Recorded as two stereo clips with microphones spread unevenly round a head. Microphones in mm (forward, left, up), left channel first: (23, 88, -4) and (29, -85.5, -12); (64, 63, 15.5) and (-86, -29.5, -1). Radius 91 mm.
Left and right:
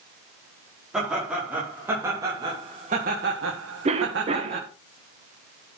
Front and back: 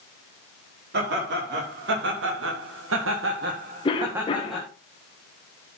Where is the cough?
35° right, 1.6 m.